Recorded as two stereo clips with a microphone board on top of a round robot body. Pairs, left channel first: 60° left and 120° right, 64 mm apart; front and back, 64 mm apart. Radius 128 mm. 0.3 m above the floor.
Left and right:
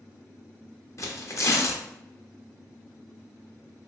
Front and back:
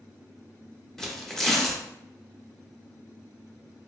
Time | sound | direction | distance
1.0 | tearing paper | 80° left | 1.0 m